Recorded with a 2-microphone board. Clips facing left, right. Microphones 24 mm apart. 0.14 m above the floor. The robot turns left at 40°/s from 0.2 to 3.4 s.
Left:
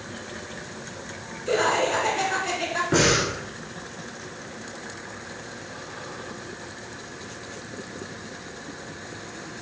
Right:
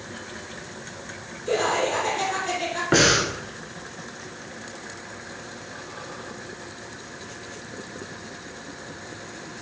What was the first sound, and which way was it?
Laughter, 115° left.